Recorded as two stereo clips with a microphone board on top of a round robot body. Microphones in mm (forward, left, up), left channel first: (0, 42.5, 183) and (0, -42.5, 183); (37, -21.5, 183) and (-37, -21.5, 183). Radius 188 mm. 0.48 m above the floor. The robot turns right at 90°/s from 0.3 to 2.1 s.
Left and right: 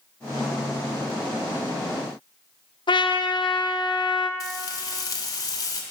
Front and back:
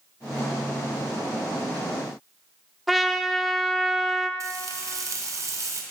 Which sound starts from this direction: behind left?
Frying, at 4.4 s.